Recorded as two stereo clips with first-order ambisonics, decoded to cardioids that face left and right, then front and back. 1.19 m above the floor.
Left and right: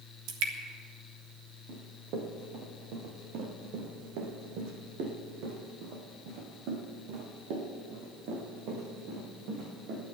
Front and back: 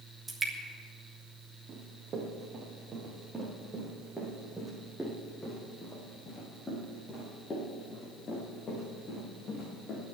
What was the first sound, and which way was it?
Dripping, 105° right.